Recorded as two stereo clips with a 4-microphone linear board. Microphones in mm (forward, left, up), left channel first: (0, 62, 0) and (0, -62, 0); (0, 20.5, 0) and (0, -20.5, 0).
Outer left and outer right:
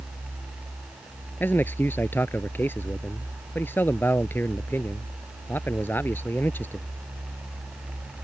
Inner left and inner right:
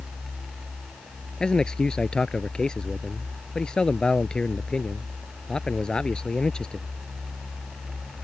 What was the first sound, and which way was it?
A man speaking, 15° left (ahead or behind).